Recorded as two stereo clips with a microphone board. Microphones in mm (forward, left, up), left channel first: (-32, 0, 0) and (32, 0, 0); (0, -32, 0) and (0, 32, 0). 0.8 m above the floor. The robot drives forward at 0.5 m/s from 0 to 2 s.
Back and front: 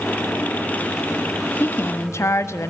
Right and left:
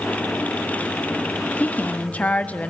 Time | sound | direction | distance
1.6 | a woman speaking | 145° right | 1.2 m